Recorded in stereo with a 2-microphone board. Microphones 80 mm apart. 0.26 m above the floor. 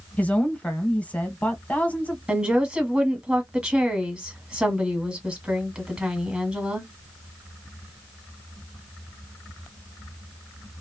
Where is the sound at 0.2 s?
15° left (ahead or behind), 1.1 m.